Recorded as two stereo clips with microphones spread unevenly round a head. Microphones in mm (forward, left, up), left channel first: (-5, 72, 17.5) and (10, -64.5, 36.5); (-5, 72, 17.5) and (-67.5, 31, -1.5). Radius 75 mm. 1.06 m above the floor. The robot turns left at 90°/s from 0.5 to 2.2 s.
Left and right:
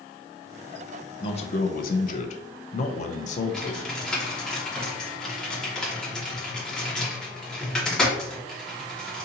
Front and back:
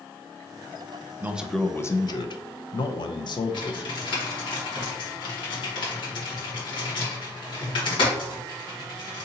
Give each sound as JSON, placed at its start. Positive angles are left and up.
{"t": 1.2, "sound": "a man speaking", "azimuth_deg": 155, "distance_m": 0.5}
{"t": 3.5, "sound": "typing on a keyboard", "azimuth_deg": 15, "distance_m": 1.2}